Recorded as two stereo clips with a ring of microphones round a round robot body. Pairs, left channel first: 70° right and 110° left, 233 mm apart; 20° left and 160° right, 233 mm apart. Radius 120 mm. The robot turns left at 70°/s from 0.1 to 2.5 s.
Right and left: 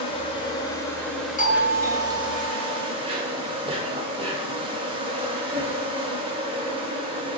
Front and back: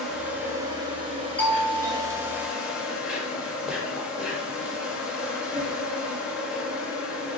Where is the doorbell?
55° right, 1.5 m; by 2.9 s 135° right, 1.5 m.